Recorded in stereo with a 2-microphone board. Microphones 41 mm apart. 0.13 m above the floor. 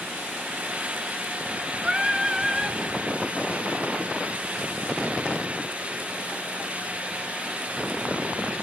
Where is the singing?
10° right (ahead or behind), 0.8 m.